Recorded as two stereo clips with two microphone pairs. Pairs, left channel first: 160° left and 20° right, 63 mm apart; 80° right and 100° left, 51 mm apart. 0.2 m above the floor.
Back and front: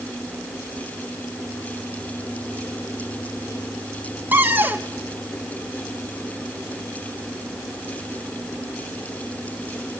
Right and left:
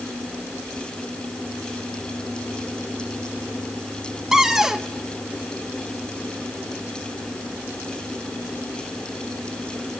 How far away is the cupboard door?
About 1.3 m.